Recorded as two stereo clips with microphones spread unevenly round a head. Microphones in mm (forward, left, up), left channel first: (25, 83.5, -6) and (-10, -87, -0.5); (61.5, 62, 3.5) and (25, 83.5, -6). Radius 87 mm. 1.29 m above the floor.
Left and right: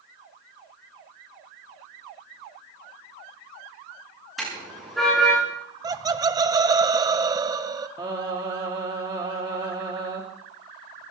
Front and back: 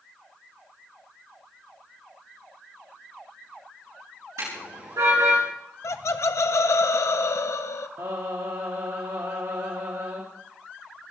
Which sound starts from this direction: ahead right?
Laughter, at 5.8 s.